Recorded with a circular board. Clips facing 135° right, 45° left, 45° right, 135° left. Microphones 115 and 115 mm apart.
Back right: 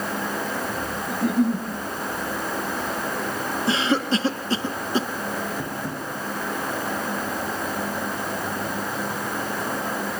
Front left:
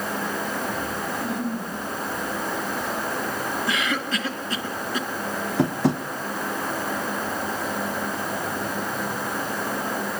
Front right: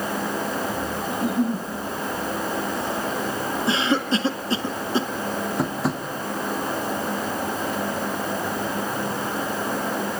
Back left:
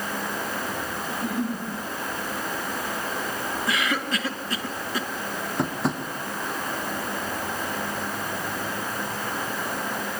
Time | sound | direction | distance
1.1 | a giggle | 115° right | 9.5 m
3.7 | a cough | 90° right | 1.7 m
5.6 | tapping | 45° left | 2.5 m